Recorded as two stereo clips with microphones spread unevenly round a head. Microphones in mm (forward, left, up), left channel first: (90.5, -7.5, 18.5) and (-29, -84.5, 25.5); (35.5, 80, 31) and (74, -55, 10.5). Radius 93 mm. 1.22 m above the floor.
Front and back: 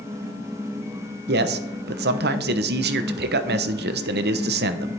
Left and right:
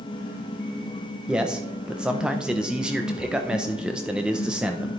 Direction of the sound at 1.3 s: 155° right.